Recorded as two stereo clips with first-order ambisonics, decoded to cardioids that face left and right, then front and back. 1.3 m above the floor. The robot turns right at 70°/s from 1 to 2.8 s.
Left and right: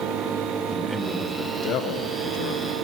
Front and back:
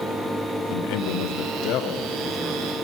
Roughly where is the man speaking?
Ahead.